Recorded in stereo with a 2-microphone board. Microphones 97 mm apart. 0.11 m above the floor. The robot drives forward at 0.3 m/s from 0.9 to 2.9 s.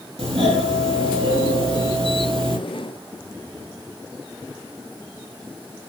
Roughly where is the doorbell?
Right.